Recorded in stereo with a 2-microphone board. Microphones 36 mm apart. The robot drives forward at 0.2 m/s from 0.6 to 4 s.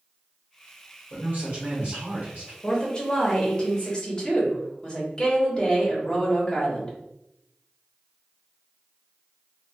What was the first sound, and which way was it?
A man speaking, 50° right (ahead or behind).